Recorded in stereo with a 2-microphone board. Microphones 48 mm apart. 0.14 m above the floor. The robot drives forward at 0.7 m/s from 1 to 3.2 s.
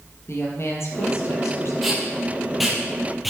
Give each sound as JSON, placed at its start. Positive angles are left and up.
{"t": 0.3, "sound": "a woman speaking", "side_deg": 65, "distance_m": 3.0}
{"t": 1.8, "sound": "tape being pulled", "side_deg": 0, "distance_m": 4.5}